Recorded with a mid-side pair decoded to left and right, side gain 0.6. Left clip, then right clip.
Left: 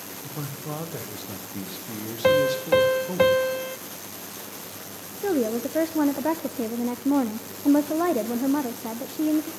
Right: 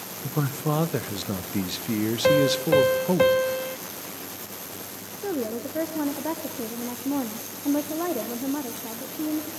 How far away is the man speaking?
About 1.2 m.